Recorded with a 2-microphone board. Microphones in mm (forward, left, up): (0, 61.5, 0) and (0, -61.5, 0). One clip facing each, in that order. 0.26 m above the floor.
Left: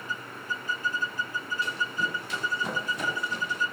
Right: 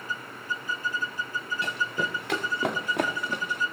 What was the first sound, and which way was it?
Running footsteps, 75° right (ahead or behind).